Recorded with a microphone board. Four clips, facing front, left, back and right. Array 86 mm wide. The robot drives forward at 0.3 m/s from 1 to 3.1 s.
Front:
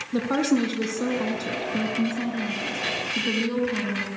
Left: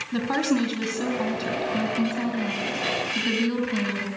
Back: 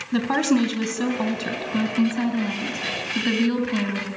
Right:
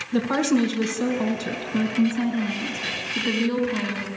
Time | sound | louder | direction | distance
0.1 | a woman speaking | right 3 dB, back 2 dB | 160° left | 4 m